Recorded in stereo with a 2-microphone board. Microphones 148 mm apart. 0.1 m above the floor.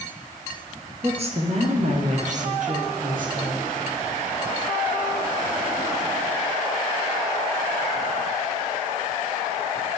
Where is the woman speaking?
45° right (ahead or behind), 1.9 m; by 3.6 s 65° right (ahead or behind), 3.5 m.